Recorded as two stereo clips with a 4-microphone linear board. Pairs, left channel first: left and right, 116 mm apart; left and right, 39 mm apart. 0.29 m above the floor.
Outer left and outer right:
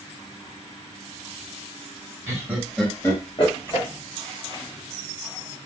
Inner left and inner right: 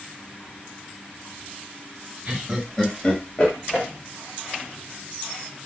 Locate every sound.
2.3 s laughter: 25° right (ahead or behind), 1.4 m; by 3.9 s 60° left (ahead or behind), 1.8 m